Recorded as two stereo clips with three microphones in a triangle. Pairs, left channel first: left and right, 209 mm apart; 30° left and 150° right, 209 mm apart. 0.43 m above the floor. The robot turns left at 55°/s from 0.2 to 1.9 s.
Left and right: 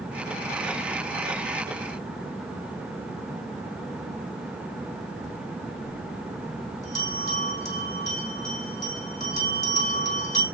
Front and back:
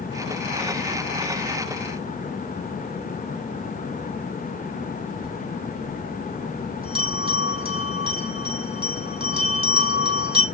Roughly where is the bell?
Behind left.